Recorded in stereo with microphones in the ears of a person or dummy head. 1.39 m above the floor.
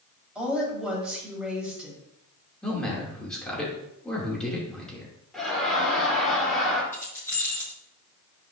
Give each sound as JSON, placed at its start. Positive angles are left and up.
{"t": 0.3, "sound": "a woman speaking", "side_deg": 0, "distance_m": 4.0}
{"t": 2.6, "sound": "a man speaking", "side_deg": 10, "distance_m": 2.5}
{"t": 5.3, "sound": "laughter", "side_deg": 5, "distance_m": 3.5}
{"t": 6.9, "sound": "keys jangling", "side_deg": 20, "distance_m": 3.5}